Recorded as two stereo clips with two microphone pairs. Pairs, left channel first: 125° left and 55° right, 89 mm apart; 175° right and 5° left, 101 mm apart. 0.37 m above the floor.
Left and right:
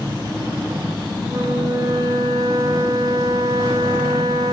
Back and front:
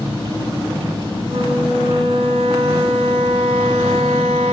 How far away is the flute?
About 1.0 m.